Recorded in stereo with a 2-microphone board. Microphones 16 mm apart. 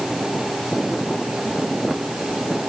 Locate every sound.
Only background noise.